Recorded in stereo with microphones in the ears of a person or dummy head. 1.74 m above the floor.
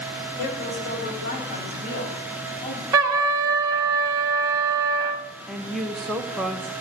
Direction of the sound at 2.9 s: 20° right (ahead or behind).